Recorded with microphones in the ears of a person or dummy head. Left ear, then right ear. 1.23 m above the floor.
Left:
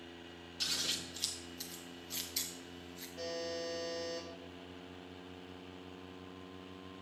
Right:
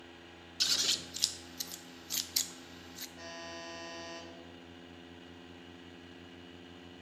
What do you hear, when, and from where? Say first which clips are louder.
0.6 s scissors: right 5 dB; 25° right (ahead or behind), 0.6 m
3.2 s a buzzer: left 7 dB; 25° left (ahead or behind), 5 m